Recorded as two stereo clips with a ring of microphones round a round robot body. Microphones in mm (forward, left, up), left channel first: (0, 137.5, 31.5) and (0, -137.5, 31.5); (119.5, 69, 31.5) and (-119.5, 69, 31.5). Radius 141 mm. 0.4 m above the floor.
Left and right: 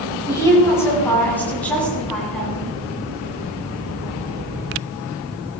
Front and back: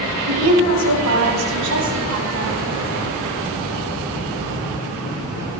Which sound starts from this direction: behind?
A woman speaking, at 0.3 s.